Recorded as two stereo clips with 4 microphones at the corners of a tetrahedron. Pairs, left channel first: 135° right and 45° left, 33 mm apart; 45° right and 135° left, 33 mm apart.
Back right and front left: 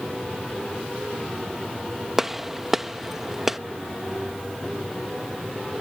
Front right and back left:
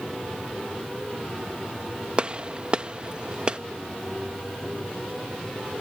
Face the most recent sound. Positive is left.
turn(degrees=120)